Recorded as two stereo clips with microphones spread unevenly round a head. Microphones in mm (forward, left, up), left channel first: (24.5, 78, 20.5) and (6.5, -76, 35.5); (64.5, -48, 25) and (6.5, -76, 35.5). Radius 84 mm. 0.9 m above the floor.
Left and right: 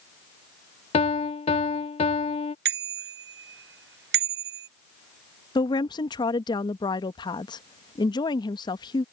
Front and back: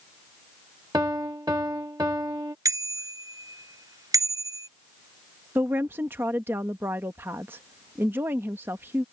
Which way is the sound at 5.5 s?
140° left.